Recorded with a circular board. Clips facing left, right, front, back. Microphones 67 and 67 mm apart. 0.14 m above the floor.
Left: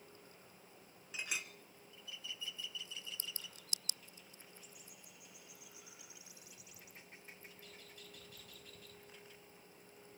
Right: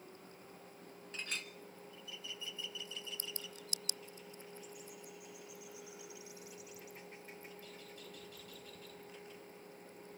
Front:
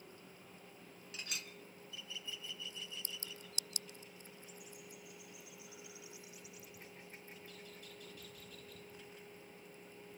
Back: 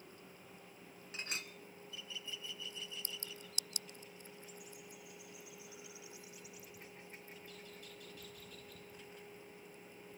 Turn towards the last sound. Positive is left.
turn(degrees=160)